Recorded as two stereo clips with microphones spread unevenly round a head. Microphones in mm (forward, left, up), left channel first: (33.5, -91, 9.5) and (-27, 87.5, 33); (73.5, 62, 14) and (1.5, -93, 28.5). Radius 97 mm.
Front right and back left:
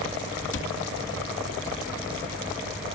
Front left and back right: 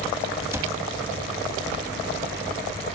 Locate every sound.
0.5 s a cupboard door: 45° right